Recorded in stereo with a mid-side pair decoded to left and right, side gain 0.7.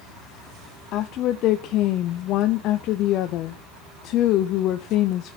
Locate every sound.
0.9 s a woman speaking: 55° left, 0.7 m